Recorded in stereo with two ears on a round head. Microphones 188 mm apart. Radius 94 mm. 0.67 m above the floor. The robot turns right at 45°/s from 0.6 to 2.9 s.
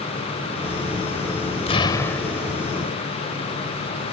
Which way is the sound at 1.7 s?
150° left.